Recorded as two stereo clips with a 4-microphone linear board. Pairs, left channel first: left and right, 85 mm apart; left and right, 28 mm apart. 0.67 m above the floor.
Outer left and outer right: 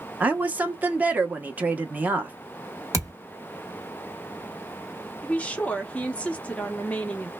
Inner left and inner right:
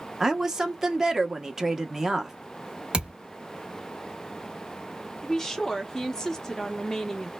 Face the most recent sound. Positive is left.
turn(degrees=15)  # may be behind; listen again after turning